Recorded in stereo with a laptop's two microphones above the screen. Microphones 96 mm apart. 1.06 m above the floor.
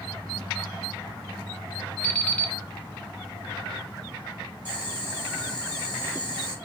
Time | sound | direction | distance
2.0 | an alarm clock | 15° left (ahead or behind) | 1.3 m
4.7 | boiling | 25° right (ahead or behind) | 2.5 m